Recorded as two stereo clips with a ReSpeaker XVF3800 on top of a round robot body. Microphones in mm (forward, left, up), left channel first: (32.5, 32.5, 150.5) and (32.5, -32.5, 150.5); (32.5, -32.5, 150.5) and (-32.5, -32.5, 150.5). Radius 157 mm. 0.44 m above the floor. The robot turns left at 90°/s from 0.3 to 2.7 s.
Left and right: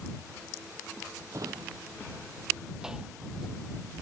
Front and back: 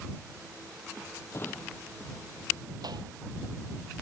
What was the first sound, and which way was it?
A drawer, 45° right.